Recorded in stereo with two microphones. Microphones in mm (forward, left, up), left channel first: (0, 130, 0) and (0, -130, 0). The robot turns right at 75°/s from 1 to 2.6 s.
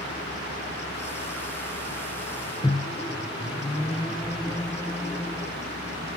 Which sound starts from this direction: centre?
A microwave, at 2.6 s.